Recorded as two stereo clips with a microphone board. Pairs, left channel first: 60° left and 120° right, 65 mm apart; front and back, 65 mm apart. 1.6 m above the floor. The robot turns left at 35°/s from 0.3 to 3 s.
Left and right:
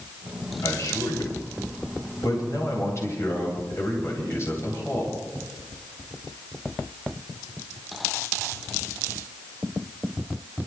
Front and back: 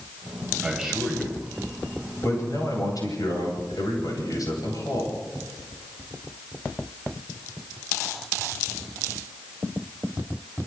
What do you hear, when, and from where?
0.6 s a man speaking: 100° left, 10 m; by 5.1 s 20° left, 10 m